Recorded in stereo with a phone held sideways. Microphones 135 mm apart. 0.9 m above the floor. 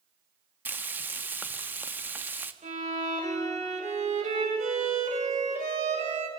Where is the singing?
I don't hear singing.